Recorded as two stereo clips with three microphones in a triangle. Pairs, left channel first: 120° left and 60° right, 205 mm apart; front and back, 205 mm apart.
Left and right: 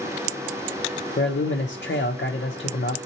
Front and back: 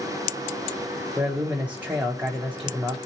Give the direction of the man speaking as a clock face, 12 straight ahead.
9 o'clock.